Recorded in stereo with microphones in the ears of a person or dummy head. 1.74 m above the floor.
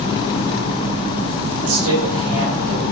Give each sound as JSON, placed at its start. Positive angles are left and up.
{"t": 1.6, "sound": "a man speaking", "side_deg": -75, "distance_m": 1.5}